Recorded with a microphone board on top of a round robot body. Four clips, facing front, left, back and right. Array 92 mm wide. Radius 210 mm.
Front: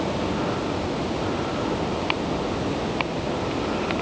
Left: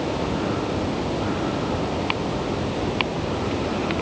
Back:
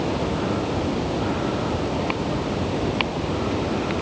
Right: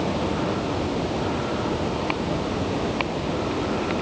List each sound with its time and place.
Only background noise.